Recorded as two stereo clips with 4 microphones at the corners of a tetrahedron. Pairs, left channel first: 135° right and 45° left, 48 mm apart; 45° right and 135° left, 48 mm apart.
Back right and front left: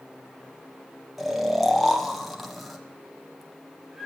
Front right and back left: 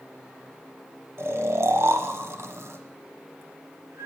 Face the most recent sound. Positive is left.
turn(degrees=135)